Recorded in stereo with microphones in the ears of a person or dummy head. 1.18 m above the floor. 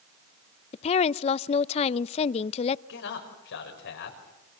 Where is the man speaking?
70° left (ahead or behind), 6 m.